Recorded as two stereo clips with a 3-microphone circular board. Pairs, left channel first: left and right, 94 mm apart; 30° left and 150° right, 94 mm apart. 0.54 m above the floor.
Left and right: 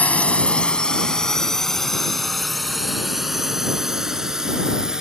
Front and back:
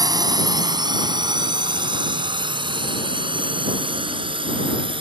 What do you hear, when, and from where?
0.0 s a drone: 165° left; by 5.0 s 175° right